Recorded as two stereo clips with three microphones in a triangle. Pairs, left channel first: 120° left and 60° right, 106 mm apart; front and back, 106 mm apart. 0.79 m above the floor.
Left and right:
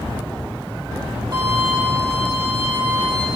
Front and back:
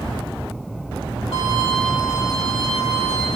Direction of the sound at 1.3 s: 10° right.